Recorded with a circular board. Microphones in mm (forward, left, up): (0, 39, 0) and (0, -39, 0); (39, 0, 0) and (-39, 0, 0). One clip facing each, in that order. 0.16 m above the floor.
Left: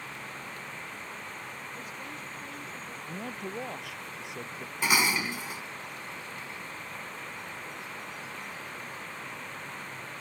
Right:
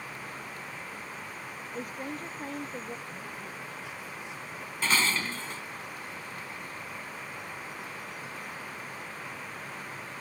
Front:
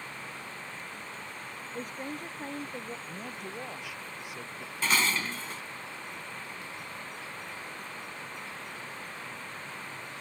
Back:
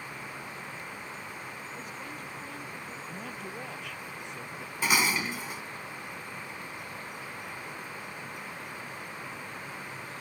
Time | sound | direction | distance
1.7 | a woman speaking | 45° right | ?
3.1 | a man speaking | 80° left | ?
4.8 | dishes clattering | 130° left | ?